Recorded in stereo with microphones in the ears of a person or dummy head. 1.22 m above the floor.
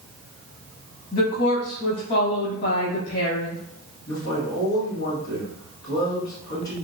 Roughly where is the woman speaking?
Left.